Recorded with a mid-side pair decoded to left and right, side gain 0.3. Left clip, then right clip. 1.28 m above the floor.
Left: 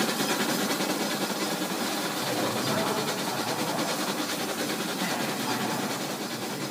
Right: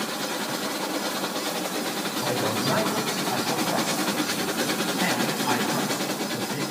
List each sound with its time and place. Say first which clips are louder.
2.2 s a man speaking: right 5 dB; 60° right, 5.5 m; by 6.6 s 65° right, 8 m